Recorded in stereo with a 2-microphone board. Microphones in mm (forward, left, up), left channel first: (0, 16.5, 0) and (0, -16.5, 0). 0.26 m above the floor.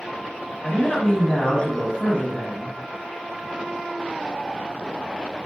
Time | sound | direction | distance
0.6 | a man speaking | 30° left (ahead or behind) | 1.8 m